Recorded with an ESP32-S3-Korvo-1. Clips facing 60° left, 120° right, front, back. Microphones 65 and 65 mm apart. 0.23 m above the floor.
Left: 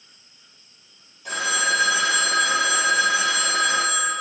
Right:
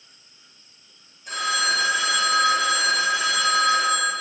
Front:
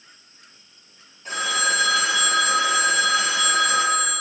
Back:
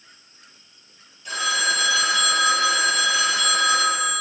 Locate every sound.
1.2 s a phone ringing: 55° left, 3 m